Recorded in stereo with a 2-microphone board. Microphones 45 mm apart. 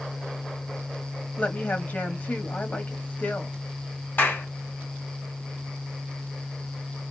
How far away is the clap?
About 1.7 m.